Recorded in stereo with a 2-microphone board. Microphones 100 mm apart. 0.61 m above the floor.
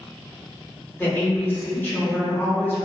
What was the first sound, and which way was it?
A woman speaking, 20° left (ahead or behind).